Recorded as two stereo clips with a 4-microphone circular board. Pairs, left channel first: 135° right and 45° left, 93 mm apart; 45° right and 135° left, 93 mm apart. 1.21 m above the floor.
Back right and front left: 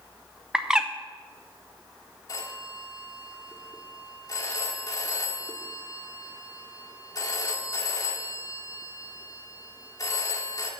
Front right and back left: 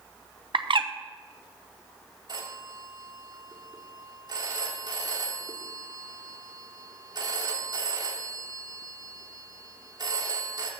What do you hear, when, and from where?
0.5 s a bird: 125° left, 0.7 m
2.3 s a phone ringing: 175° left, 1.8 m